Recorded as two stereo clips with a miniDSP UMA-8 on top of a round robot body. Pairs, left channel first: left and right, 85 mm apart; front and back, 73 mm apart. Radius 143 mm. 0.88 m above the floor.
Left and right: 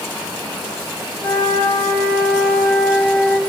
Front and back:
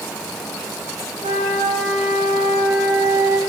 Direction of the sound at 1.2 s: 165° left.